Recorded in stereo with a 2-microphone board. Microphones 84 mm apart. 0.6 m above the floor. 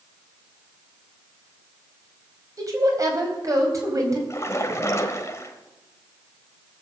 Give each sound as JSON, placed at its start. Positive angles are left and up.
{"t": 2.6, "sound": "a woman speaking", "side_deg": -40, "distance_m": 4.0}
{"t": 4.3, "sound": "a splash", "side_deg": 35, "distance_m": 1.5}